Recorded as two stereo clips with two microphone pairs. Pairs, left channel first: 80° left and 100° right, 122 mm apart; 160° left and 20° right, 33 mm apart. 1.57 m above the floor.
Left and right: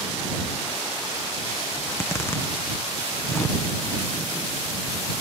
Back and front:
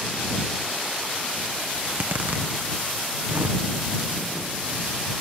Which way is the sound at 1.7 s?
10° left.